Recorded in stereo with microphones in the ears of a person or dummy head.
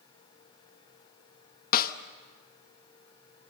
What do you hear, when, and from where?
1.7 s a snare drum: 50° left (ahead or behind), 1.0 m